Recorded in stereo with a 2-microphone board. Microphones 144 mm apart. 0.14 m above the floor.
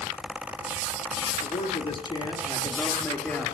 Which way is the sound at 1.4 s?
50° left (ahead or behind).